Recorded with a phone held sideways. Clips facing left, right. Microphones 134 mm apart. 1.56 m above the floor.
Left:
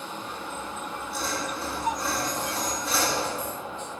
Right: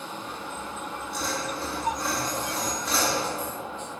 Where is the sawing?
5° left (ahead or behind), 2 m.